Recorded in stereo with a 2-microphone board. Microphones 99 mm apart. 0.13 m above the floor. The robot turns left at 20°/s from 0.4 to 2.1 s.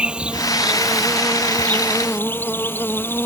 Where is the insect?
170° right; by 3.3 s 155° left.